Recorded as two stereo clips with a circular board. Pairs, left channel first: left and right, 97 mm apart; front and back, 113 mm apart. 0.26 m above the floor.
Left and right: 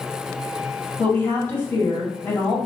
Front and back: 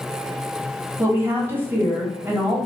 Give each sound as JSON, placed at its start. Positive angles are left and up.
{"t": 1.0, "sound": "a woman speaking", "azimuth_deg": 135, "distance_m": 1.4}